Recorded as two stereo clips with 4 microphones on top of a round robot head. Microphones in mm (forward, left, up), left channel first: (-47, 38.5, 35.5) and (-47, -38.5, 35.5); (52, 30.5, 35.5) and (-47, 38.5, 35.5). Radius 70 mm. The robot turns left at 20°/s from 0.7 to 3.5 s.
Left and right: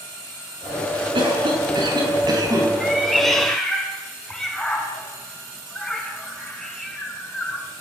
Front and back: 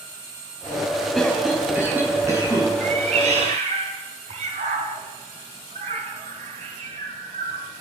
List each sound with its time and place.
1.1 s a cough: 95° right, 7.5 m; by 2.7 s 125° right, 7.5 m
2.8 s a cat meowing: 175° right, 4.5 m; by 7.7 s 175° left, 4.5 m